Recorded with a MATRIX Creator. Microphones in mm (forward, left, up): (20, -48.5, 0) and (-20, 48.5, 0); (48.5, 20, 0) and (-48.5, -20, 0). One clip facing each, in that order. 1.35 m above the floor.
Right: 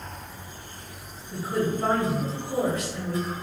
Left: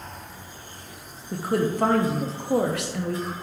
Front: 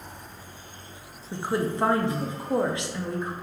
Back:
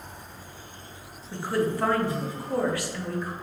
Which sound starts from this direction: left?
A woman speaking, at 1.3 s.